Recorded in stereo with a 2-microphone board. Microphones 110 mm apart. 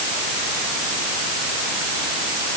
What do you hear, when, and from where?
Only background noise.